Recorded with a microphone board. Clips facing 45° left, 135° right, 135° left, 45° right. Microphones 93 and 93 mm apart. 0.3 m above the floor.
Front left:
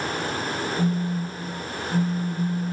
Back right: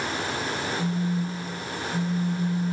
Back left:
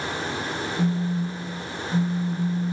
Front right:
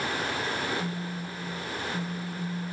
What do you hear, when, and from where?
0.8 s a phone buzzing: 75° left, 0.9 m